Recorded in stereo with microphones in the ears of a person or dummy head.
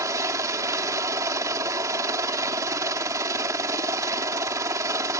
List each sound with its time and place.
0.0 s a helicopter: 15° right (ahead or behind)